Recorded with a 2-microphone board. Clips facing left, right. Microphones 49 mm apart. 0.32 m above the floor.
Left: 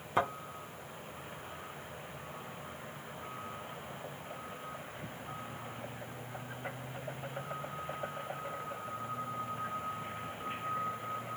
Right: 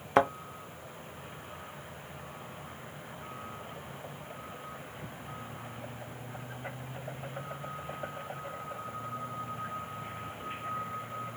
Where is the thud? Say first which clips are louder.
Right 6 dB; 65° right (ahead or behind), 0.6 m.